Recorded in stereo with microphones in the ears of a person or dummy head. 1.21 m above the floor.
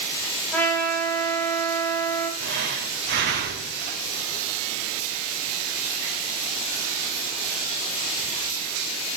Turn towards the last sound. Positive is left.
turn(degrees=-70)  # may be behind; listen again after turning